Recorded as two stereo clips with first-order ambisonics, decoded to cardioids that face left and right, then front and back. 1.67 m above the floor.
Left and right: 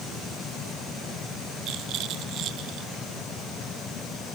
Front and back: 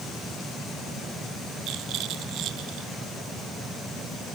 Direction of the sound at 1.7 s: 140° right.